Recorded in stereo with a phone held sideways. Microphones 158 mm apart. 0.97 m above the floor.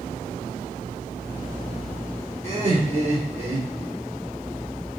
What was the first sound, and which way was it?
Laughter, 45° right (ahead or behind).